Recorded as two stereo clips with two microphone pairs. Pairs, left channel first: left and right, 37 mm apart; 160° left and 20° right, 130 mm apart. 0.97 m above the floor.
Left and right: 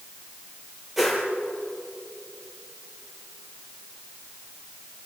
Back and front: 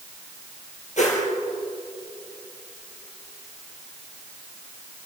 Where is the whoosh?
175° right, 4.5 m.